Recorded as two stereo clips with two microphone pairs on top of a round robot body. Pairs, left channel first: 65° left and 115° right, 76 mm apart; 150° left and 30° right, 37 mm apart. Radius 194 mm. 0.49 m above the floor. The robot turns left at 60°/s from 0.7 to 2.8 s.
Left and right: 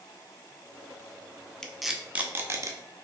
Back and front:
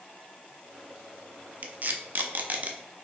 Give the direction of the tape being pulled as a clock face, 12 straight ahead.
12 o'clock.